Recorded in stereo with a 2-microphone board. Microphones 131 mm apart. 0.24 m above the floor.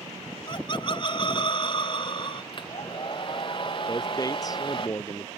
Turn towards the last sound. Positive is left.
turn(degrees=30)  # may be behind; listen again after turning